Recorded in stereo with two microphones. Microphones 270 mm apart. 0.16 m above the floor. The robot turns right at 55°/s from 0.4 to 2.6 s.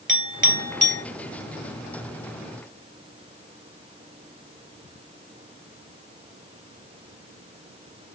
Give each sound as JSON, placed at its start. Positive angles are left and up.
{"t": 0.1, "sound": "a clink", "side_deg": -45, "distance_m": 2.5}